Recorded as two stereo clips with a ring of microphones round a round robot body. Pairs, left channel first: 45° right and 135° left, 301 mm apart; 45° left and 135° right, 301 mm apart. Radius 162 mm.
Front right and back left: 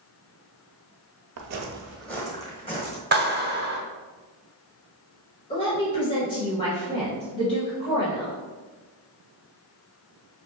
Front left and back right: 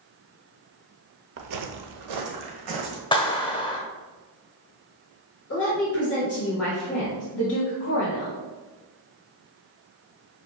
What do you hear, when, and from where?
1.4 s footsteps: 175° left, 0.5 m; by 3.0 s 115° right, 1.9 m
3.1 s a clap: 110° left, 1.0 m
5.5 s a woman speaking: 15° left, 1.9 m